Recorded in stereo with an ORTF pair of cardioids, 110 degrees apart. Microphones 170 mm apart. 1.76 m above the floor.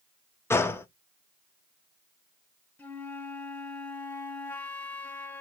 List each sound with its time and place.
0.5 s a gunshot: 15° left, 0.7 m
2.8 s a flute: 10° left, 1.3 m